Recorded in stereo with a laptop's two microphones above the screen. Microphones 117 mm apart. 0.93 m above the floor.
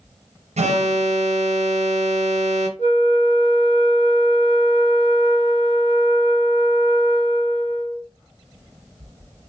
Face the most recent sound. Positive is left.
turn(degrees=60)  # may be behind; listen again after turning